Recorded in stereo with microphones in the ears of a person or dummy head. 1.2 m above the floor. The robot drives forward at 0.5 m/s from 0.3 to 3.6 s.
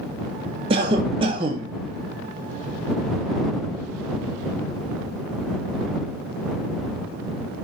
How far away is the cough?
About 0.6 m.